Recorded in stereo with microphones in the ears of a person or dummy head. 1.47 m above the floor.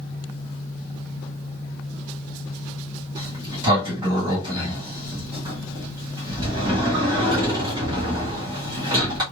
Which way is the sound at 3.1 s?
25° right (ahead or behind).